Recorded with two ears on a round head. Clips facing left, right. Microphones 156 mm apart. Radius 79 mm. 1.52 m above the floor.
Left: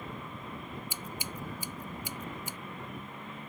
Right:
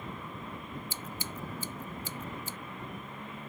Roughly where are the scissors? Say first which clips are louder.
Even; centre.